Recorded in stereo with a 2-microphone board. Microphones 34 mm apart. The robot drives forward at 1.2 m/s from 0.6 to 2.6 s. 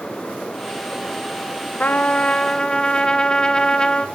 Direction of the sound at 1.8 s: 55° left (ahead or behind).